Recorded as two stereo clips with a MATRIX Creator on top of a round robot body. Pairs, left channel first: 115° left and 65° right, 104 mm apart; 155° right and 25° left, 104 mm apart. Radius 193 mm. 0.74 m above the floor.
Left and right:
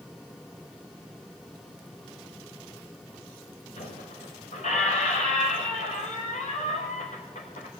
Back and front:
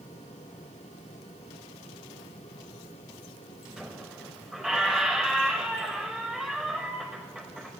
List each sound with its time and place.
3.8 s a squeak: 115° left, 0.6 m